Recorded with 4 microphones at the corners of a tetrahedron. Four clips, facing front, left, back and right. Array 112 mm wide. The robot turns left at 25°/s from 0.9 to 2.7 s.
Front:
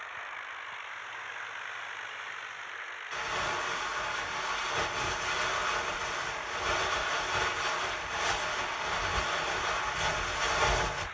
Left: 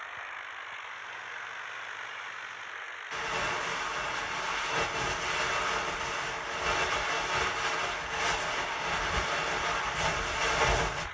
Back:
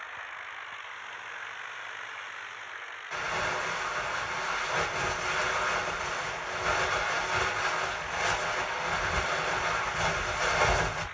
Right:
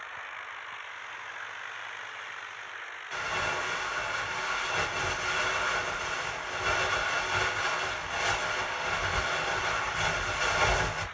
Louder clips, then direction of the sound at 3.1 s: Right 1 dB, back 2 dB; 165° right.